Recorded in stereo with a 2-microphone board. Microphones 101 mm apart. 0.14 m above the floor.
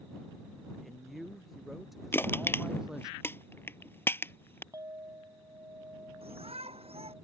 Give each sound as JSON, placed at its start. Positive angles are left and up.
{"t": 0.8, "sound": "a man speaking", "side_deg": 0}
{"t": 2.1, "sound": "crushing", "side_deg": 20}
{"t": 4.7, "sound": "a clink", "side_deg": -35}
{"t": 6.2, "sound": "a shout", "side_deg": -70}